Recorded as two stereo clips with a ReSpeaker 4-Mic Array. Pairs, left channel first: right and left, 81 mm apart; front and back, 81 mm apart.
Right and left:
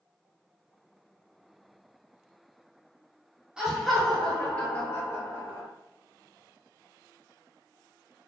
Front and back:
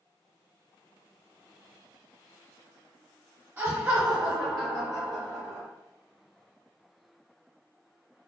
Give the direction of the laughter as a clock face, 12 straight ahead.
7 o'clock.